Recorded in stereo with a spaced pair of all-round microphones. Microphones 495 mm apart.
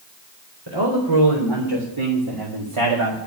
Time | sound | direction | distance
0.7 | a man speaking | 65° right (ahead or behind) | 4 m